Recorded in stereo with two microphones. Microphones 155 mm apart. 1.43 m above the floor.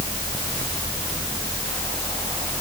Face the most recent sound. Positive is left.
No sound to turn to.